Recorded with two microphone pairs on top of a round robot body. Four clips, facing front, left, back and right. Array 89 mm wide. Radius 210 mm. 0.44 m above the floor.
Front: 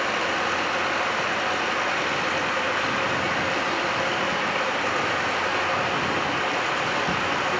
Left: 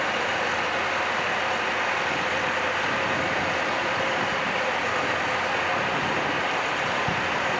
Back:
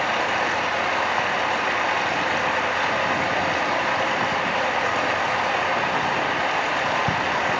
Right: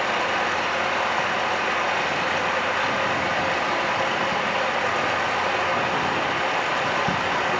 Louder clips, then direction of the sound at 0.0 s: Right 3 dB, back 2 dB; 155° right.